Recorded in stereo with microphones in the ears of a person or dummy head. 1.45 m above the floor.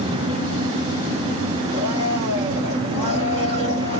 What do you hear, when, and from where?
1.7 s a blender: 30° right (ahead or behind), 4 m